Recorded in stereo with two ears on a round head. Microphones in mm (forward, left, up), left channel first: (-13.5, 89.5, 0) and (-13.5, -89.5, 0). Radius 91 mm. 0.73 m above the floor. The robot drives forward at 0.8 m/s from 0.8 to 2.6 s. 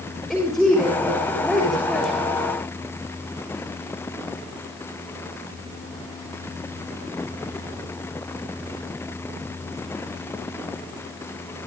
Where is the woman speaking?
Centre (ahead or behind), 7.5 m.